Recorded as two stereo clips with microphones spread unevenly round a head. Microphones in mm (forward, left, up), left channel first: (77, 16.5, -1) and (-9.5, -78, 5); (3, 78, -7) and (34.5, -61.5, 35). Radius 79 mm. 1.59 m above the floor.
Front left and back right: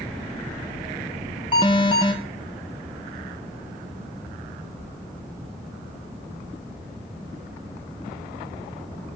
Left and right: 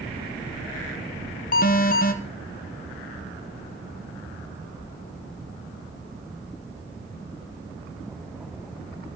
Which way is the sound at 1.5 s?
110° left.